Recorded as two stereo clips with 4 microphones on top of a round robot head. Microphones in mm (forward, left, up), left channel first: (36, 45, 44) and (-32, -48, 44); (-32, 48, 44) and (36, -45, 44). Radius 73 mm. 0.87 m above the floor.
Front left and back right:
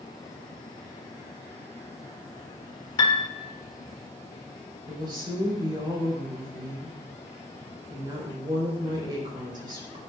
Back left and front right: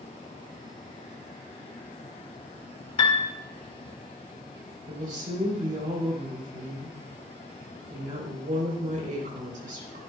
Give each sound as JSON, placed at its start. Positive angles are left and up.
{"t": 3.0, "sound": "a piano", "azimuth_deg": 90, "distance_m": 1.6}
{"t": 4.9, "sound": "a woman speaking", "azimuth_deg": -75, "distance_m": 3.5}